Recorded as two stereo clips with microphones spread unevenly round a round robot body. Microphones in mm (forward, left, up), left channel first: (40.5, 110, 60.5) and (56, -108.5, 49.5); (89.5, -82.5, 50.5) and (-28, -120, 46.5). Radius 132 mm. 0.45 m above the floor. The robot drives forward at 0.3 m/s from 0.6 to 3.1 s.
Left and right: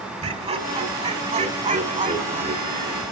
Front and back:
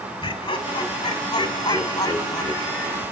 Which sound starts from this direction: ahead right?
Laughter, at 0.2 s.